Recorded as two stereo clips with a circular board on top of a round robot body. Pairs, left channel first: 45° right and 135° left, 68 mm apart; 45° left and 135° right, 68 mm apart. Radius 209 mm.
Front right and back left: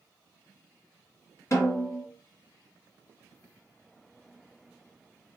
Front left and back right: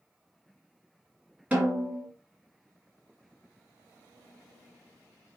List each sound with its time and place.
1.5 s a snare drum: 70° right, 1.8 m